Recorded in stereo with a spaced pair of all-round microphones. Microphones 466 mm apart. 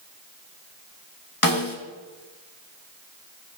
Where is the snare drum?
45° left (ahead or behind), 1.8 m.